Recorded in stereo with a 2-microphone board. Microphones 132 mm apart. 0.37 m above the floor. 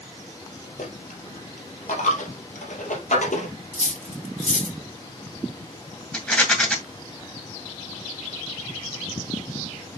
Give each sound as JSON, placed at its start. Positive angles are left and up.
{"t": 0.8, "sound": "a dropped coin", "side_deg": 70, "distance_m": 2.5}
{"t": 3.7, "sound": "cutlery clinking", "side_deg": 75, "distance_m": 1.7}
{"t": 6.1, "sound": "a rattle", "side_deg": 5, "distance_m": 2.0}